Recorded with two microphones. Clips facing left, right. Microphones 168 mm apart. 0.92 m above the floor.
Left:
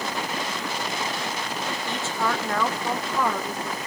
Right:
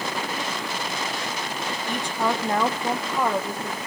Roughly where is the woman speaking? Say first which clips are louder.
Right 3 dB; centre.